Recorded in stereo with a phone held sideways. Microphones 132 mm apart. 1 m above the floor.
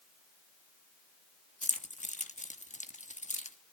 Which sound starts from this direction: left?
Keys jangling, at 1.6 s.